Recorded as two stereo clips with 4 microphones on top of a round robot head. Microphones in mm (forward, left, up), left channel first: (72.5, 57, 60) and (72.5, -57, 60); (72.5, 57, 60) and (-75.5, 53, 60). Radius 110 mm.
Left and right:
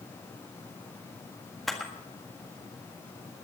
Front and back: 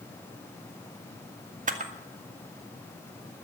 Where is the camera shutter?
Straight behind, 1.7 m.